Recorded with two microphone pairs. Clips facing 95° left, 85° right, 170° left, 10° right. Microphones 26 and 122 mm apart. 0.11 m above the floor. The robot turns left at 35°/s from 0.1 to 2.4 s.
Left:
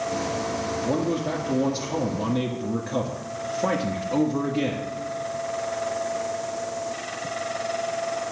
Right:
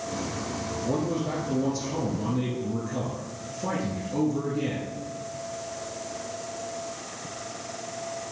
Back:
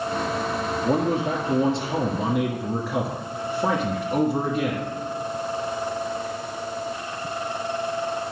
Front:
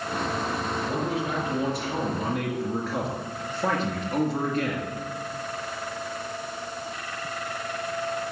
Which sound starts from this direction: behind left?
A man speaking, at 0.8 s.